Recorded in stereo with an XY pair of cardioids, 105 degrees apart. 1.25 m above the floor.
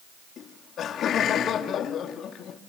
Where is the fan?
No fan in this recording.